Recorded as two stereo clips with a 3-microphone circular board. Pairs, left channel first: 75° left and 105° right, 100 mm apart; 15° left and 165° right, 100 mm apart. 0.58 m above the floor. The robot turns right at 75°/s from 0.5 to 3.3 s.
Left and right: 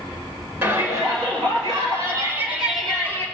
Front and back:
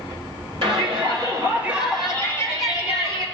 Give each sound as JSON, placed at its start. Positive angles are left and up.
{"t": 0.6, "sound": "a shout", "azimuth_deg": -175, "distance_m": 3.0}